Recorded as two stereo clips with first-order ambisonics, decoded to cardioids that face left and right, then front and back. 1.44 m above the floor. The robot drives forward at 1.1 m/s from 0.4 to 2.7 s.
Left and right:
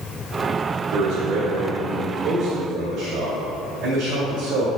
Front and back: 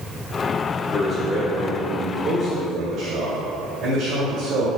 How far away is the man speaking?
About 1.3 m.